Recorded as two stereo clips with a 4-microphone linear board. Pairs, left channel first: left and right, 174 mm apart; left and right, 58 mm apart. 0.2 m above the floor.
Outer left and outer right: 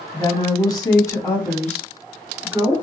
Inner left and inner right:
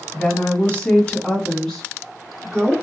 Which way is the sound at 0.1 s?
25° left (ahead or behind).